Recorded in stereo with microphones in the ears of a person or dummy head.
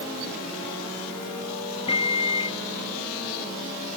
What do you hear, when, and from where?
1.9 s a microwave: 30° left (ahead or behind)